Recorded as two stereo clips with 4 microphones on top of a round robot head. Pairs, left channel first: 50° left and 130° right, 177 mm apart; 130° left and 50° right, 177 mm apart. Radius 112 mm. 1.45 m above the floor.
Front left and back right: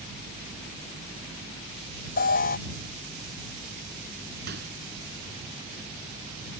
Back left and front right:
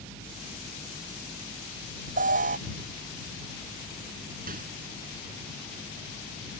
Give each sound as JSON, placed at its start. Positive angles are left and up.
{"t": 2.2, "sound": "an alarm", "azimuth_deg": 0}
{"t": 4.5, "sound": "a microwave", "azimuth_deg": -95}